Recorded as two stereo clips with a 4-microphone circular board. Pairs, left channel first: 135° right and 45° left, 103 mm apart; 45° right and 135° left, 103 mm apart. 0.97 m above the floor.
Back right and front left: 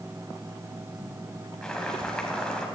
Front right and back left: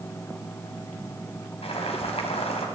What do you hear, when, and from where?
1.6 s boiling: 55° right, 2.5 m